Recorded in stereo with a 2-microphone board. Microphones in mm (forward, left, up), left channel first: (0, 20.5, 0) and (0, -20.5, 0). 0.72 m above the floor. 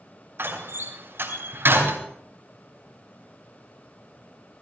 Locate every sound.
0.4 s a door slam: 70° right (ahead or behind), 3.5 m